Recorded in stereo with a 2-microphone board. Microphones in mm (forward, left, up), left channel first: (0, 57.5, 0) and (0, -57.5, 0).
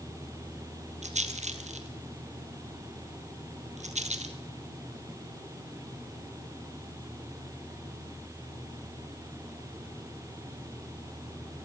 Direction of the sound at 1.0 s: 85° right.